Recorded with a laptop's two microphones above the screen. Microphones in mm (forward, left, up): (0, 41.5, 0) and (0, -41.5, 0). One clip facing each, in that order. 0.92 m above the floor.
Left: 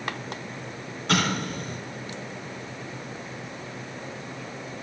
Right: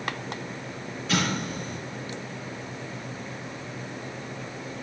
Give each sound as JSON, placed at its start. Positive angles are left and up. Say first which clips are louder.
{"t": 1.1, "sound": "an explosion", "louder": "left 2 dB", "side_deg": 60, "distance_m": 2.5}